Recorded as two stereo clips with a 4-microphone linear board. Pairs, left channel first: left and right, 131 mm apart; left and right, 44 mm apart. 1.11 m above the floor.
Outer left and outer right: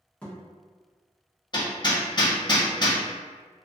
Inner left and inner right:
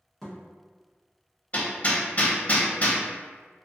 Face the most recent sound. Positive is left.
turn(degrees=35)  # may be behind; listen again after turning